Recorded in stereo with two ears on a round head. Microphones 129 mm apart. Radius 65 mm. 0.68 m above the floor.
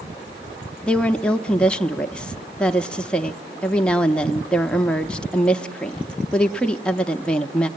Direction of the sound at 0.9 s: 10° left (ahead or behind).